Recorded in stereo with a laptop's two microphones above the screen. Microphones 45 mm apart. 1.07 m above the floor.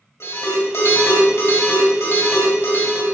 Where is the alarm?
75° left (ahead or behind), 3.5 m.